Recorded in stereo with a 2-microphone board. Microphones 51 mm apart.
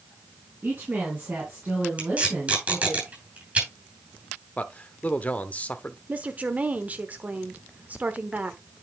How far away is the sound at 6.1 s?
About 1.0 m.